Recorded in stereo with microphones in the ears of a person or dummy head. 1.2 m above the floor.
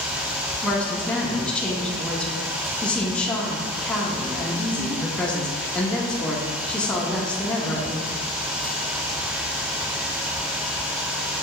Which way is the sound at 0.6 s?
5° left (ahead or behind).